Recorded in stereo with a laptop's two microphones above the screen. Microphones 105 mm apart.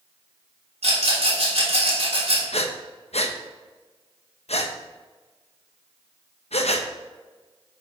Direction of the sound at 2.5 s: 75° left (ahead or behind).